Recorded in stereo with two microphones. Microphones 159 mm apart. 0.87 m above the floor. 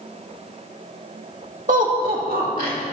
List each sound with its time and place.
1.7 s laughter: 55° right (ahead or behind), 1.8 m; by 2.8 s 65° right (ahead or behind), 2 m